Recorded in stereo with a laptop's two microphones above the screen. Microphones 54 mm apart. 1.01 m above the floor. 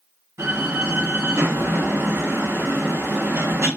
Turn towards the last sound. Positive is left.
turn(degrees=-70)  # may be behind; listen again after turning